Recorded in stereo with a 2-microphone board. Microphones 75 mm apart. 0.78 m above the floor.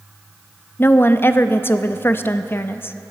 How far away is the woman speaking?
About 0.5 m.